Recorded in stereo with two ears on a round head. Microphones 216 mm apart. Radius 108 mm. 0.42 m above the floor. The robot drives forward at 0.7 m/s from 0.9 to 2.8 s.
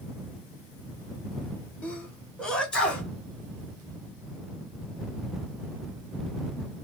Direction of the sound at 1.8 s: 5° left (ahead or behind).